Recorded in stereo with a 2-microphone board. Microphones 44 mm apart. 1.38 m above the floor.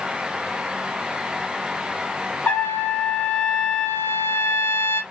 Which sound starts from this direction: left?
A trumpet, at 2.5 s.